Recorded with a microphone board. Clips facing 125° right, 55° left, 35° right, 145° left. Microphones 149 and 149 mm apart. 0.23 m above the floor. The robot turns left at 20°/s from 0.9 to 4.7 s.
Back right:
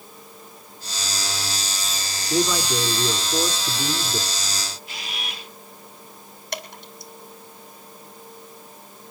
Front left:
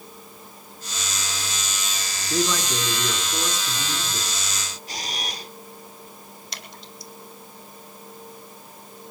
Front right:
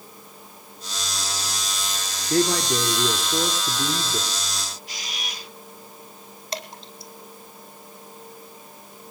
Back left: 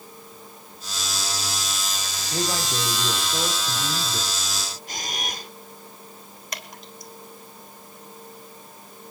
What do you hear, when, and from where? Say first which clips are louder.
2.3 s a man speaking: back right 2 dB, front right 7 dB; 45° right, 3 m; by 4.6 s 90° right, 3 m
4.9 s a camera shutter: front left 3 dB, back left 4 dB; 105° left, 1.6 m
6.5 s dripping: back right 10 dB, front right 5 dB; 95° right, 3 m